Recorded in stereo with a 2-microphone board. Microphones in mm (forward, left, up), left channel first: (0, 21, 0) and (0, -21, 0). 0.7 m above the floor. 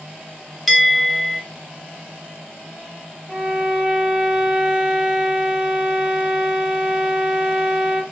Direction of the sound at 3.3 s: 30° right (ahead or behind).